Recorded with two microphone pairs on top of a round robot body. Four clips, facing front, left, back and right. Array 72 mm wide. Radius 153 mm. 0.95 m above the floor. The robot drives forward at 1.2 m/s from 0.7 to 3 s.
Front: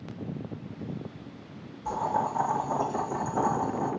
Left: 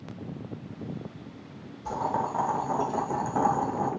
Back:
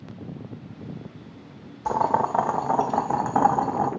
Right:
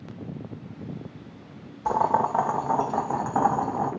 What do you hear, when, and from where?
1.9 s boiling: 130° right, 0.9 m; by 3.9 s 165° right, 2 m